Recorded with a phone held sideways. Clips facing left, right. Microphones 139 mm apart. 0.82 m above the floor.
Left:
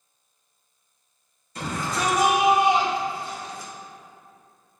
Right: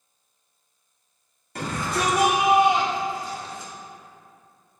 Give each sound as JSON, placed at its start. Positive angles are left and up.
{"t": 1.6, "sound": "a shout", "side_deg": -65, "distance_m": 1.9}